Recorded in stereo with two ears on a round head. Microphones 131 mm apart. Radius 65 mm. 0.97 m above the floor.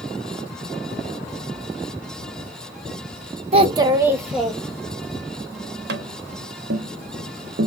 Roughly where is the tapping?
Right.